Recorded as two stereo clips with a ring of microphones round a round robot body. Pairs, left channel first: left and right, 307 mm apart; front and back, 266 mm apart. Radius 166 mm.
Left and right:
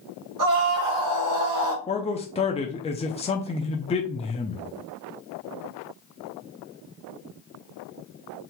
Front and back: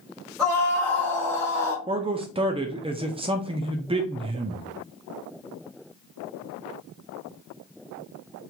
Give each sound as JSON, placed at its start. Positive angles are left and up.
{"t": 0.4, "sound": "a scream", "azimuth_deg": -85, "distance_m": 3.0}
{"t": 1.9, "sound": "a man speaking", "azimuth_deg": 135, "distance_m": 0.7}